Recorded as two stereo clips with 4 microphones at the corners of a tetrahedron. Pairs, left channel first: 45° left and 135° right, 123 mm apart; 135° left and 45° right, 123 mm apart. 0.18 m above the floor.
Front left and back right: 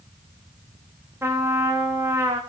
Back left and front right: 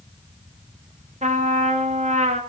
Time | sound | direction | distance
1.2 | a trumpet | 65° right | 2.5 m